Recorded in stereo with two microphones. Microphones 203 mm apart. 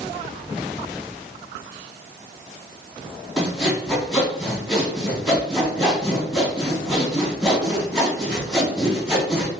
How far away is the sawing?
About 1.9 m.